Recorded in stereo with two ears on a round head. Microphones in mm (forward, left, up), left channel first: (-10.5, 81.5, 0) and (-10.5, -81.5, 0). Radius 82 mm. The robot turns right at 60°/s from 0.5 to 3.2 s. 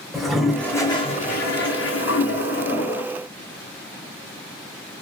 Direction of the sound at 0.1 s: Straight ahead.